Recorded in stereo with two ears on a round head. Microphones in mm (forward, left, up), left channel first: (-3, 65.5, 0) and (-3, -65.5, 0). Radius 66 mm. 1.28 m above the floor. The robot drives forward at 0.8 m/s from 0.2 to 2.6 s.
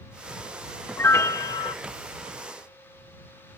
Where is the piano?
15° left (ahead or behind); by 1.8 s 35° left (ahead or behind).